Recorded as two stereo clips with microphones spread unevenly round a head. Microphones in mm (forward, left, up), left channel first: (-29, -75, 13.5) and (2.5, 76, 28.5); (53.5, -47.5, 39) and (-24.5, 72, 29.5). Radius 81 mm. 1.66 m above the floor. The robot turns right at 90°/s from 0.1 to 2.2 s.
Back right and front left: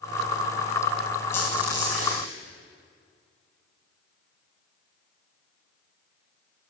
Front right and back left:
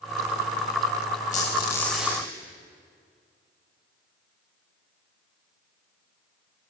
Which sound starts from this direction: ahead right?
A squeak, at 1.3 s.